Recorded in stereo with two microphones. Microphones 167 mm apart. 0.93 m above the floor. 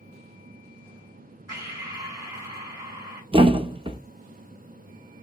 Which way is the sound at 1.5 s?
20° right (ahead or behind).